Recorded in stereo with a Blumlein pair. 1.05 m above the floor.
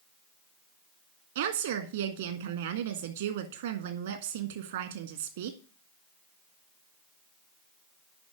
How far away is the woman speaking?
About 1.5 m.